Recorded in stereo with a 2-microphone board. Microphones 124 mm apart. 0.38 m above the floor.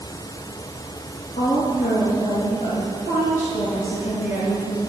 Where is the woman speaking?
70° left (ahead or behind), 6.5 m.